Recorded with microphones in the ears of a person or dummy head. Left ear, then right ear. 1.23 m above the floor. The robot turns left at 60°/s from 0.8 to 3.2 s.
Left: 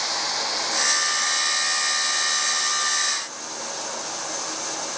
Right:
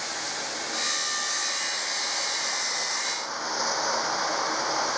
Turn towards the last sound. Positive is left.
turn(degrees=-110)